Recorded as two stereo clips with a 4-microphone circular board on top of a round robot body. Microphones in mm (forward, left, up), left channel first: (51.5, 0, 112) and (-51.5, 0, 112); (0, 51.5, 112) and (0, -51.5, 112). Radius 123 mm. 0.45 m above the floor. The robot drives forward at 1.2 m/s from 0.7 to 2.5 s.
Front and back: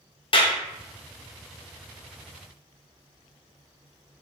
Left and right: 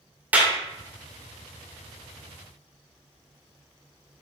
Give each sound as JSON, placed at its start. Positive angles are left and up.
{"t": 0.3, "sound": "a clap", "azimuth_deg": -20, "distance_m": 1.9}